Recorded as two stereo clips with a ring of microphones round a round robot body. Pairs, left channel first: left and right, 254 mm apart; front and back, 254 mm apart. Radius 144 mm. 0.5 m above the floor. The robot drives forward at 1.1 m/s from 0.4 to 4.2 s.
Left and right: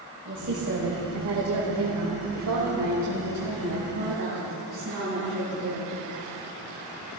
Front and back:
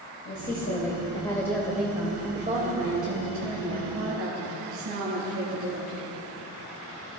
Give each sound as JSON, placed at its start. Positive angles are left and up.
{"t": 0.2, "sound": "a woman speaking", "azimuth_deg": -50, "distance_m": 2.5}